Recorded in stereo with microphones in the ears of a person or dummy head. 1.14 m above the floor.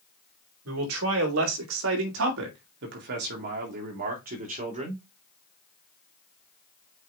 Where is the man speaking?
90° right, 2.5 m; by 5.0 s 35° right (ahead or behind), 2.5 m.